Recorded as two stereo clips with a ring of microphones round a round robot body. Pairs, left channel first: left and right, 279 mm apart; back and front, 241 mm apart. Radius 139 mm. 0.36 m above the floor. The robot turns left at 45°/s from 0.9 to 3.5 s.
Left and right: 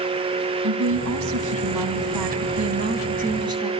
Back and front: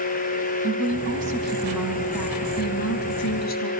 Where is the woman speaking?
45° right, 2.5 m; by 3.7 s 165° right, 2.5 m.